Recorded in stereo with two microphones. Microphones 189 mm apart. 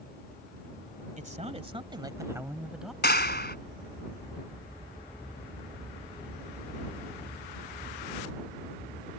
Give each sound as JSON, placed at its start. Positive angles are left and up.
{"t": 1.2, "sound": "a man speaking", "side_deg": -40}
{"t": 3.0, "sound": "a clap", "side_deg": 60}